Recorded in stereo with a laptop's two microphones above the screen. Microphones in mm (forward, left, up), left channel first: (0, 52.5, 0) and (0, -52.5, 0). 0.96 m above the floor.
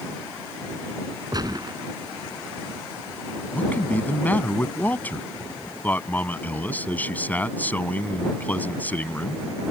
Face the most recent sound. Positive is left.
turn(degrees=15)  # may be behind; listen again after turning